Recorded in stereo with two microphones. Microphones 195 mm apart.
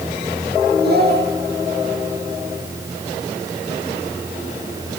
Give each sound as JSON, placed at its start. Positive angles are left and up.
{"t": 0.8, "sound": "a child speaking", "side_deg": -60, "distance_m": 7.0}